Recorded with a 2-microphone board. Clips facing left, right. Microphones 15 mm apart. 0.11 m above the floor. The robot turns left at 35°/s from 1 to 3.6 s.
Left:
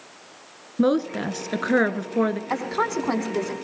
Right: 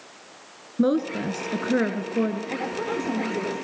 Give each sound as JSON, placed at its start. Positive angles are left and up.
{"t": 0.8, "sound": "a woman speaking", "azimuth_deg": 150, "distance_m": 1.4}
{"t": 2.5, "sound": "a woman speaking", "azimuth_deg": 100, "distance_m": 6.0}